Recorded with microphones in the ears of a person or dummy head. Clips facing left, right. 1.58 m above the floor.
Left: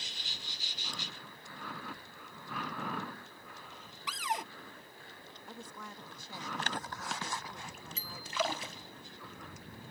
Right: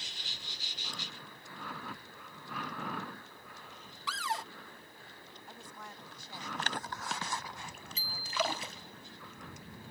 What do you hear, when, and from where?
4.1 s a cupboard door: 10° left (ahead or behind)
5.5 s a woman speaking: 65° left (ahead or behind)
8.0 s a bicycle bell: 40° left (ahead or behind)